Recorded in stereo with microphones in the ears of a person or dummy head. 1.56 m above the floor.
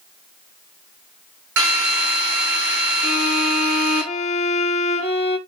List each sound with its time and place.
1.6 s a drill: 65° right (ahead or behind), 7.5 m
3.0 s a violin: 30° left (ahead or behind), 3 m